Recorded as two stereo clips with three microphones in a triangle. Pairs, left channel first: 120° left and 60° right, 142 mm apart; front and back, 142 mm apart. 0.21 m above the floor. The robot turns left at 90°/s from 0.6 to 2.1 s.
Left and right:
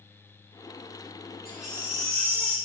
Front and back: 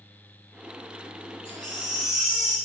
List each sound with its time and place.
1.4 s a baby crying: 135° right, 3 m; by 2.6 s 170° left, 3 m